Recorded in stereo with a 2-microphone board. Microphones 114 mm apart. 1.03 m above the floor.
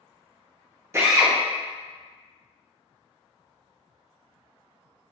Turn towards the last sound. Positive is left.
turn(degrees=-25)  # may be behind; listen again after turning